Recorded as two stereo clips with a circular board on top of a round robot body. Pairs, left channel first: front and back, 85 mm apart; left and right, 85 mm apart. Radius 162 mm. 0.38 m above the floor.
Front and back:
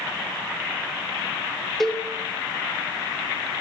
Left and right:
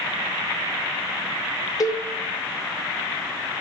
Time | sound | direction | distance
1.8 | a cowbell | 85° left | 1.0 m